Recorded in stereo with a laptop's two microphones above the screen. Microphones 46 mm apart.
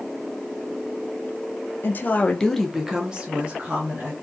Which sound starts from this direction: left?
A woman speaking, at 1.8 s.